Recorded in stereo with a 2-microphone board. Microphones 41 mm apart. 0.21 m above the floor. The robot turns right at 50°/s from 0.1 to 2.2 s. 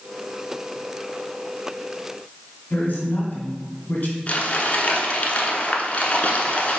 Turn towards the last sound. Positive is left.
turn(degrees=35)  # may be behind; listen again after turning